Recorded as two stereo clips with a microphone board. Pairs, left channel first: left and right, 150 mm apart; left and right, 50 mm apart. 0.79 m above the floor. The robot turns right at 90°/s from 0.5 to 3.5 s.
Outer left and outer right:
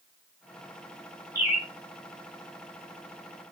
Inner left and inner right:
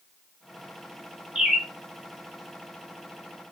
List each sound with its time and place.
1.4 s a bird: 20° right, 0.6 m; by 1.7 s 15° left, 0.6 m